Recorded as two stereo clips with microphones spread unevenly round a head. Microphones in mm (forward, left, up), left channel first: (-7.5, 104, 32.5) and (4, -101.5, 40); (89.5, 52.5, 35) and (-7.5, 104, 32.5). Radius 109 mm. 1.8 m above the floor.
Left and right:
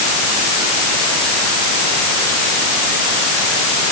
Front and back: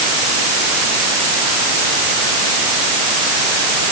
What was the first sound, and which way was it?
Only background noise.